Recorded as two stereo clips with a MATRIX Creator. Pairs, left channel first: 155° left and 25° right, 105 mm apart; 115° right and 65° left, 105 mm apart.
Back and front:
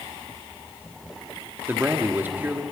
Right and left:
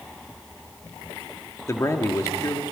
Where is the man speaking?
80° right, 1.4 m.